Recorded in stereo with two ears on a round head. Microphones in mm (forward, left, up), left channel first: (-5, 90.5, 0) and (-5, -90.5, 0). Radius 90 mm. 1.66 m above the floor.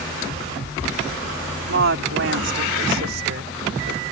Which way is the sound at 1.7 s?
65° right (ahead or behind).